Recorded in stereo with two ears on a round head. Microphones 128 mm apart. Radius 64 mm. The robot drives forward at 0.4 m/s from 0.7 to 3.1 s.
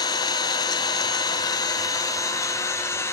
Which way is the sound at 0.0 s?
30° left (ahead or behind).